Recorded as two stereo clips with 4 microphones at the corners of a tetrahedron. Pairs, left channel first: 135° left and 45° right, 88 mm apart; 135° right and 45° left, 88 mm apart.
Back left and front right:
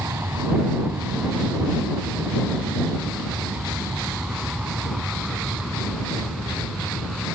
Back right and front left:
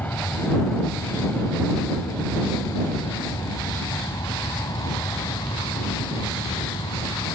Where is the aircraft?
80° right; by 7.3 s 135° right.